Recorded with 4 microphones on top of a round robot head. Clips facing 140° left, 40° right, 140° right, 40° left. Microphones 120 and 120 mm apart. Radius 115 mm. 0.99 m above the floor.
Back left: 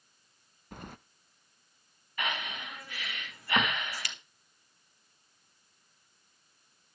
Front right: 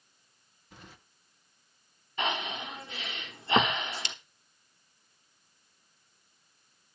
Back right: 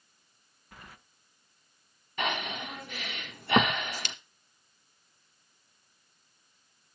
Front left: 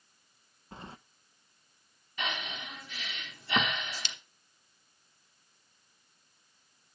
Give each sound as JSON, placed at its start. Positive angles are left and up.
{"t": 0.7, "sound": "keys jangling", "azimuth_deg": 100, "distance_m": 0.8}
{"t": 2.2, "sound": "breathing", "azimuth_deg": -105, "distance_m": 1.2}